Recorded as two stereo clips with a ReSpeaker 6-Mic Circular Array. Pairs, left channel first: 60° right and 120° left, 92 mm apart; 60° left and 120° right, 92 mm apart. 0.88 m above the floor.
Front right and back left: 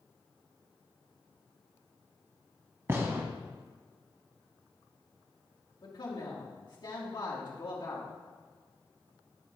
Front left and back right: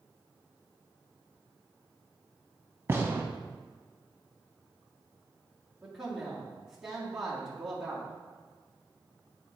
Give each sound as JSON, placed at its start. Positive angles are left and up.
{"t": 2.9, "sound": "a gunshot", "azimuth_deg": 180, "distance_m": 1.0}
{"t": 5.8, "sound": "a man speaking", "azimuth_deg": -30, "distance_m": 2.0}